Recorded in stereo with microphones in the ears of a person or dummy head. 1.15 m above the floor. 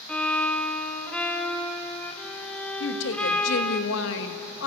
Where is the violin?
5° left (ahead or behind), 1.4 m.